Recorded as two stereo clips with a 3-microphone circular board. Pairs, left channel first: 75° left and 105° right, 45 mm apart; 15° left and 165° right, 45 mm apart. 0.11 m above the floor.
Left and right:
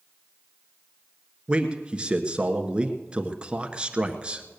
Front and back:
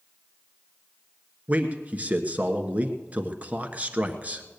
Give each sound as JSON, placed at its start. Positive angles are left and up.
{"t": 1.5, "sound": "a man speaking", "azimuth_deg": -150, "distance_m": 1.2}